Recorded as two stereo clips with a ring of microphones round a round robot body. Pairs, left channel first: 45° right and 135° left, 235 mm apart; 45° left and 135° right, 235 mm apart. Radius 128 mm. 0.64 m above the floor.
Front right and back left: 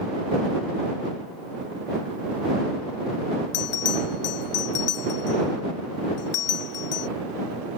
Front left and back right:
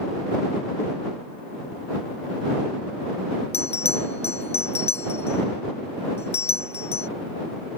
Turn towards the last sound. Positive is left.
turn(degrees=-20)